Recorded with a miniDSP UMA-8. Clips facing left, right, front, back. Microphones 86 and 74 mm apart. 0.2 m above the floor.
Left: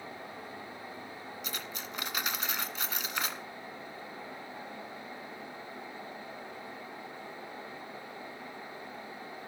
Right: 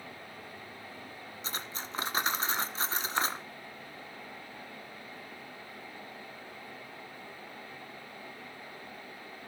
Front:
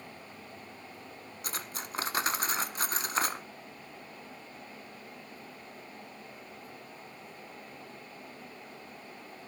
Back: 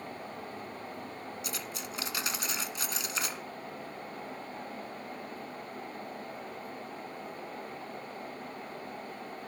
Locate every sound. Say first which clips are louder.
1.4 s cutlery clinking: right 4 dB, back 1 dB; 40° right, 1.2 m